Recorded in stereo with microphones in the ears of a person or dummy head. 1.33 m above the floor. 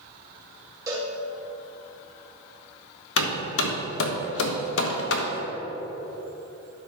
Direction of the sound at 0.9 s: 20° right (ahead or behind).